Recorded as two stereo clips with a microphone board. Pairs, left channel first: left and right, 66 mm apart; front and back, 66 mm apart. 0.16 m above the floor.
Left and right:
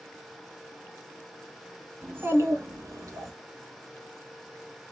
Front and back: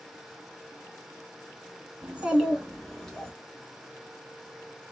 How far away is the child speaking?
About 1.2 m.